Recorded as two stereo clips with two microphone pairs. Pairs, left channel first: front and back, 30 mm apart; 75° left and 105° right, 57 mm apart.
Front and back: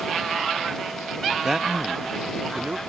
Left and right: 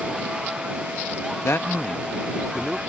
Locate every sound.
1.4 s a man speaking: 105° left; by 2.8 s 170° left